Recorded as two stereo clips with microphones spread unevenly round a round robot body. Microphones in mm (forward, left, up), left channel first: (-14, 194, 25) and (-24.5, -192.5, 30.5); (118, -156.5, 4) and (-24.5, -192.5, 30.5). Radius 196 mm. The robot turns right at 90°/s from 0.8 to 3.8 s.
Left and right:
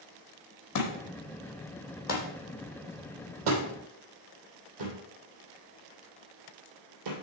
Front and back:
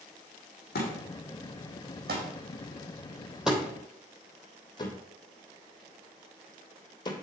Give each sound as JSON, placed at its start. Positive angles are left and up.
{"t": 0.8, "sound": "a thud", "azimuth_deg": 40, "distance_m": 2.0}